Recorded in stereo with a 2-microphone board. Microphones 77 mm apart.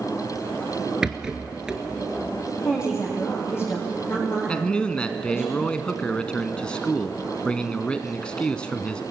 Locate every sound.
1.0 s a rattle: 10° right (ahead or behind), 1.5 m
2.6 s a woman speaking: 30° left (ahead or behind), 5.5 m
4.5 s a man speaking: 10° left (ahead or behind), 1.0 m